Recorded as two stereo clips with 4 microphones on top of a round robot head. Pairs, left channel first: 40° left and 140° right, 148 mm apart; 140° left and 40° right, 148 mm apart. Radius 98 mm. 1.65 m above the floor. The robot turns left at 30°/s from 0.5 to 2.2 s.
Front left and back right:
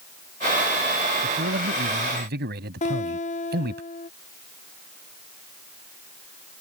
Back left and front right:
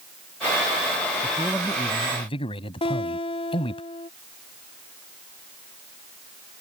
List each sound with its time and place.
1.2 s a man speaking: 135° right; by 3.8 s 160° right
2.8 s a guitar: 85° left